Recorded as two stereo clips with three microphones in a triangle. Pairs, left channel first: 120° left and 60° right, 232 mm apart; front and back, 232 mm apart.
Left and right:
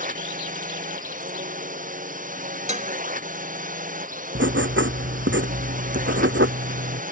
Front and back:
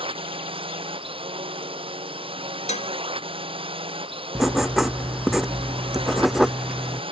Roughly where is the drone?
Behind right.